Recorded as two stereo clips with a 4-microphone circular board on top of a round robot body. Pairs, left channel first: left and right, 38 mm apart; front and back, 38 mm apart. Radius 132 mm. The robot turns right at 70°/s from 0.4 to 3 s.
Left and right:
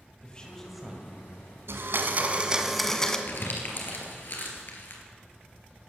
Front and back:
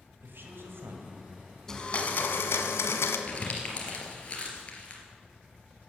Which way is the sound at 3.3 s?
55° left.